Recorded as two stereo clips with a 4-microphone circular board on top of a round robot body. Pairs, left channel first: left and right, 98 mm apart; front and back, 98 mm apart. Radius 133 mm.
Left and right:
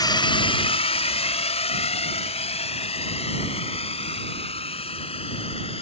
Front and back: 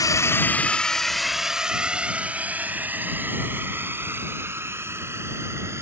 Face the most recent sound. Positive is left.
turn(degrees=115)